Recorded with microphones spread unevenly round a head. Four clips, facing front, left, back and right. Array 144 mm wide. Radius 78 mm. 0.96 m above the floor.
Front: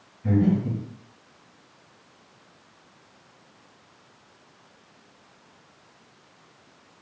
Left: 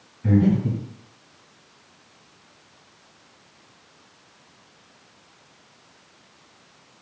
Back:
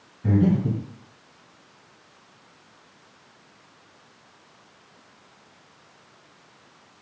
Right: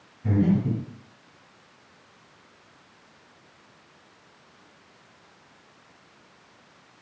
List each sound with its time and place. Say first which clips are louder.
0.2 s breathing: left 3 dB, back 1 dB; 145° left, 1.8 m